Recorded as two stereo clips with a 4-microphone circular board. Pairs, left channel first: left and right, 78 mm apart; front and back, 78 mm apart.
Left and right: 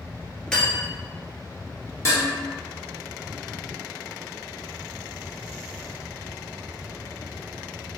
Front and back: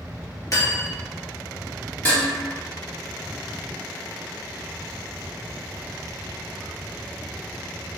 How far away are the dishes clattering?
About 1.2 m.